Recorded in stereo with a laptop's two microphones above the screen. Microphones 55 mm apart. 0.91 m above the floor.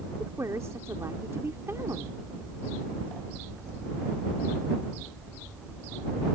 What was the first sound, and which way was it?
A woman speaking, 65° right (ahead or behind).